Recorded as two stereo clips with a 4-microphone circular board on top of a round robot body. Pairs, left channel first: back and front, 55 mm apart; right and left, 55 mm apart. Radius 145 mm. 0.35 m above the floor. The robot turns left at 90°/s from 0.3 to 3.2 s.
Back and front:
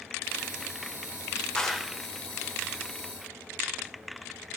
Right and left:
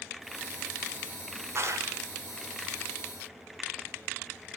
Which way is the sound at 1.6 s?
110° left.